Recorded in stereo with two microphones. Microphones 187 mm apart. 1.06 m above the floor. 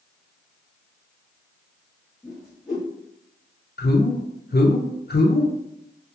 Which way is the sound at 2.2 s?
Centre (ahead or behind).